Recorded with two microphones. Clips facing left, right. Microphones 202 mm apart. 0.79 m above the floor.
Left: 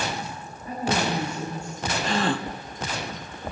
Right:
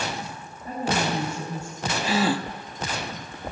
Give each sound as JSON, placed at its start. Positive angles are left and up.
{"t": 0.7, "sound": "a woman speaking", "side_deg": -35, "distance_m": 5.5}
{"t": 2.0, "sound": "a gasp", "side_deg": -5, "distance_m": 0.6}